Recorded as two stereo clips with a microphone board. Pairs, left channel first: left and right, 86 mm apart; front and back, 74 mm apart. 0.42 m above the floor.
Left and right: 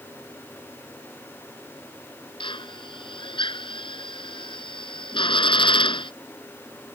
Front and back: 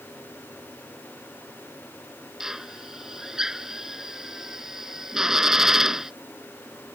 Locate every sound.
2.4 s a drill: 95° left